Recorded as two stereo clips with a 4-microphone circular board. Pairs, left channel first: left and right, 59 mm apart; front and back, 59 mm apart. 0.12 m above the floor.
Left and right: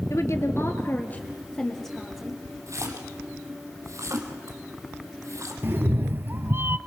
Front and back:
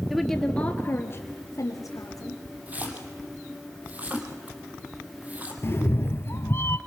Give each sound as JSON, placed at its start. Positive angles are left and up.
{"t": 0.1, "sound": "a woman speaking", "azimuth_deg": 90, "distance_m": 1.8}
{"t": 2.7, "sound": "a splash", "azimuth_deg": -115, "distance_m": 2.5}
{"t": 5.6, "sound": "a cat meowing", "azimuth_deg": -40, "distance_m": 0.5}